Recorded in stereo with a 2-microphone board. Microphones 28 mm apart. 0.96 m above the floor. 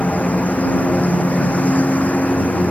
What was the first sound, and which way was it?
A lawn mower, 65° left (ahead or behind).